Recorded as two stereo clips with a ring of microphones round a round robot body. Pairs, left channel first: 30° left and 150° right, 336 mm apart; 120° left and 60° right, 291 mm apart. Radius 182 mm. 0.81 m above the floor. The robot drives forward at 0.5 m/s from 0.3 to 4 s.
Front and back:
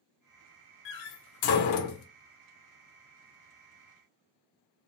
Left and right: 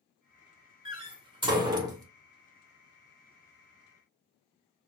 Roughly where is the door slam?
Ahead.